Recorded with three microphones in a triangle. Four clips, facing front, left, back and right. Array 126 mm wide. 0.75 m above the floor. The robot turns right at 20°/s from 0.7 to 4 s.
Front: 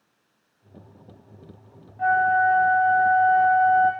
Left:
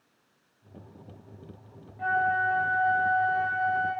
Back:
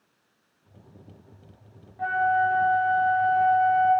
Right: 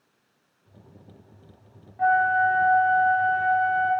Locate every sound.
2.0 s a flute: 75° right, 0.7 m; by 3.9 s 40° right, 0.7 m